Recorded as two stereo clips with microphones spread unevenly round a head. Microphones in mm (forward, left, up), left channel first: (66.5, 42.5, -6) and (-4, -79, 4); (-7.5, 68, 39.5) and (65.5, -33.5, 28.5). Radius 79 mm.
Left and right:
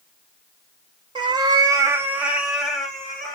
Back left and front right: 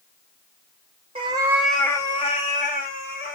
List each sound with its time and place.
1.1 s a cat meowing: 95° right, 0.8 m; by 3.4 s 145° left, 1.7 m